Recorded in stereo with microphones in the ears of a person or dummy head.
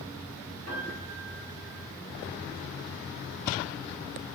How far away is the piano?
About 2.0 m.